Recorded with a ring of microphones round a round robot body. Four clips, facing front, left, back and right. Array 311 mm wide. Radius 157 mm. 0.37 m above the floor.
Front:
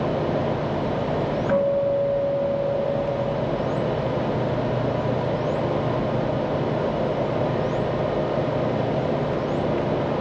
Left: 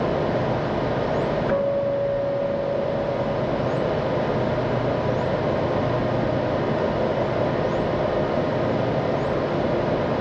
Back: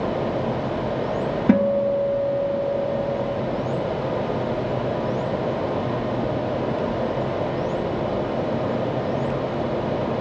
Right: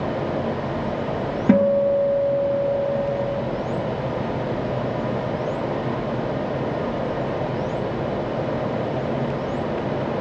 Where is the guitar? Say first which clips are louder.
Right 9 dB, back 2 dB; 135° right, 2 m.